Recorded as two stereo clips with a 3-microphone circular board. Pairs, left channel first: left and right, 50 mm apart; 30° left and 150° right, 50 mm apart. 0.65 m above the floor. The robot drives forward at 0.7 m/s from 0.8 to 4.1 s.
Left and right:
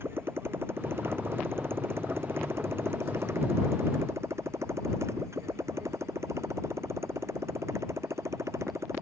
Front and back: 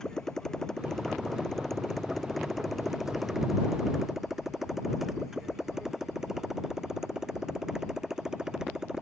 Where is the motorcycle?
50° right; by 9.0 s 70° right.